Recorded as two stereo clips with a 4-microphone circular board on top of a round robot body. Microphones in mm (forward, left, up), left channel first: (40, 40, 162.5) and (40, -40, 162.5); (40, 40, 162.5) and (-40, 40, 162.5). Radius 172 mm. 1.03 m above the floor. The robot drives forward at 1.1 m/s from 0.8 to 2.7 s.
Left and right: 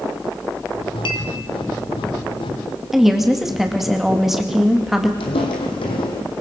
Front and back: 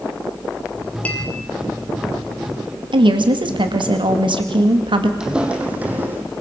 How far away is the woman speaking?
About 2.5 m.